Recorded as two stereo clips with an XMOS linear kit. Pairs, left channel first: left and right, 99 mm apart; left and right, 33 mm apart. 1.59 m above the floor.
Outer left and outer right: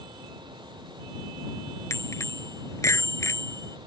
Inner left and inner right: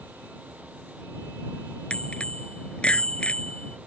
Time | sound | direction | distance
1.9 | a bicycle bell | 30° left (ahead or behind) | ?